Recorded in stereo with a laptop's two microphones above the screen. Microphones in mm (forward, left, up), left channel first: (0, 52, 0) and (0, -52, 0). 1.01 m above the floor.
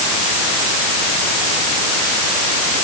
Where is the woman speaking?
I don't hear a woman speaking.